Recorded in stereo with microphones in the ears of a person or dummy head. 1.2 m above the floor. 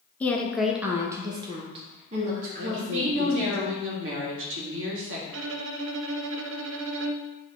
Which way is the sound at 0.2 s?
20° left (ahead or behind).